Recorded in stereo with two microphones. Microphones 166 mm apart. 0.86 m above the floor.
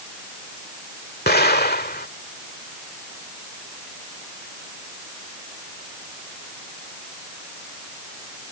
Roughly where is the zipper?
I don't hear a zipper.